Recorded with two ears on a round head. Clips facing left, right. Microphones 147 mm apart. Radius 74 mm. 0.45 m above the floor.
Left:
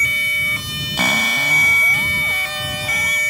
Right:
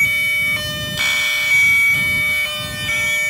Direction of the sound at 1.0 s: 40° left (ahead or behind).